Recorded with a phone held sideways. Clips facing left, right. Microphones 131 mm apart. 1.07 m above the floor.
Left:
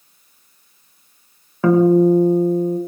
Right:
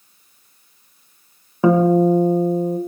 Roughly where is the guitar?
Centre.